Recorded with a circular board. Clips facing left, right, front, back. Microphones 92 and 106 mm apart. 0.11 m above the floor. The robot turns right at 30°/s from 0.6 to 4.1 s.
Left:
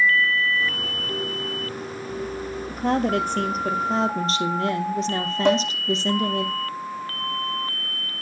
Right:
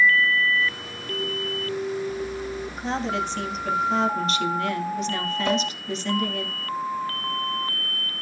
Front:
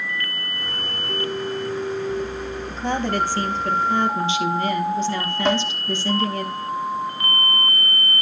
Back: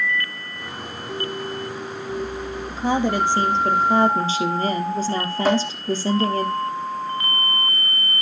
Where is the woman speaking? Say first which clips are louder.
Left 7 dB, back 3 dB; 95° left, 2 m; by 6.5 s 135° left, 2 m.